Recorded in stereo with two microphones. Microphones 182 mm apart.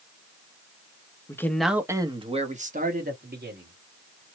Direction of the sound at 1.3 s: 15° left (ahead or behind).